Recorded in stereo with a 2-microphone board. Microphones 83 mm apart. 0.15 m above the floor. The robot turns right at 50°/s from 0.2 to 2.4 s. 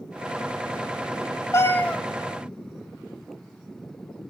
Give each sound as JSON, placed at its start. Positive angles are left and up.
{"t": 1.5, "sound": "a cat meowing", "side_deg": 35, "distance_m": 0.5}